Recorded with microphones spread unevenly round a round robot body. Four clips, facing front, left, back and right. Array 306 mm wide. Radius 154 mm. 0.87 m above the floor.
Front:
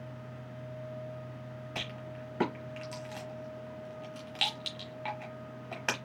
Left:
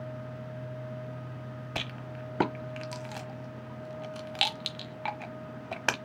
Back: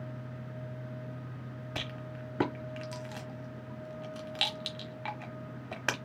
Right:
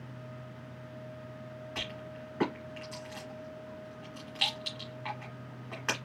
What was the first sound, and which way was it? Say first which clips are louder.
A rattle: left 4 dB, back 1 dB; 80° left.